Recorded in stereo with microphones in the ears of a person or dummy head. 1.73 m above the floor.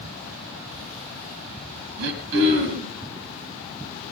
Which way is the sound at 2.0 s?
60° right (ahead or behind).